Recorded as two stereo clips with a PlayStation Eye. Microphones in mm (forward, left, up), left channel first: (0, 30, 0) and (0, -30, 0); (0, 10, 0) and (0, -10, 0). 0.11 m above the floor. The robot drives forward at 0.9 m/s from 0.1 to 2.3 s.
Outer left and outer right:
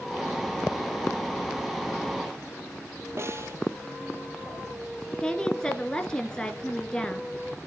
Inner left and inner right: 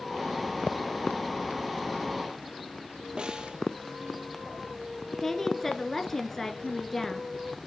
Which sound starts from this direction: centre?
A woman speaking, at 5.2 s.